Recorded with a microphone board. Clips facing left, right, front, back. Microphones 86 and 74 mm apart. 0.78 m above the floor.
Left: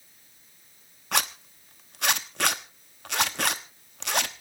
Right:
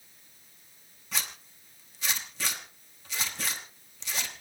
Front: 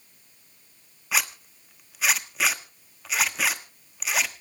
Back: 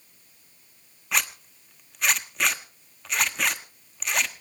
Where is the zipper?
85° left, 1.0 m.